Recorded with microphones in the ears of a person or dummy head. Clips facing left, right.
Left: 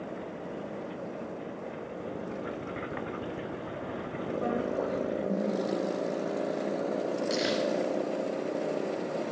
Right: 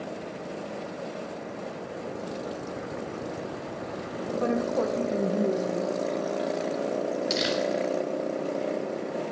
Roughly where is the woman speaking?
Right.